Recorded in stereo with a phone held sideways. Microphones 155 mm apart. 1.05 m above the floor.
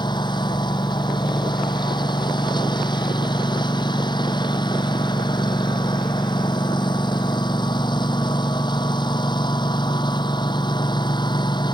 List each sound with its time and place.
0.0 s a lawn mower: 30° left (ahead or behind)